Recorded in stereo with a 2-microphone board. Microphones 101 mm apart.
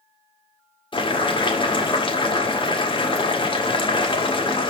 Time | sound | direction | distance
0.9 | boiling | 50° left (ahead or behind) | 1.6 m